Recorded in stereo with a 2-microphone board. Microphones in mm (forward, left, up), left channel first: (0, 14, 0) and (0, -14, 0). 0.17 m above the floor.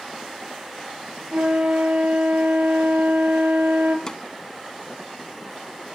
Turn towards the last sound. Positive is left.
turn(degrees=20)  # may be behind; listen again after turning